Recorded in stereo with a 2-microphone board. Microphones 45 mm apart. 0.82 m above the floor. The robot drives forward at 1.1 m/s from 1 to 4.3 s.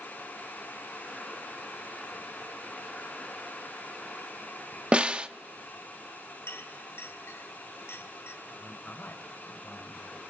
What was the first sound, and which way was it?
A snare drum, 25° right (ahead or behind).